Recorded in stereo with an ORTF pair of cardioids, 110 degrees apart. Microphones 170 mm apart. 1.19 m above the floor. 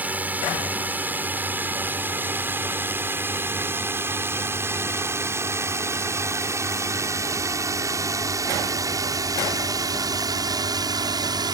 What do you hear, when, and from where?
0.0 s a drone: 10° right; by 11.5 s 25° right